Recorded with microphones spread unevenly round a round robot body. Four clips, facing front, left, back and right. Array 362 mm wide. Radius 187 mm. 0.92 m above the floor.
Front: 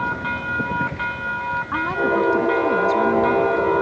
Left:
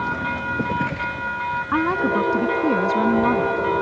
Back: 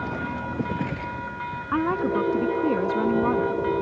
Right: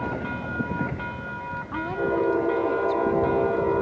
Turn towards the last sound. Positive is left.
turn(degrees=110)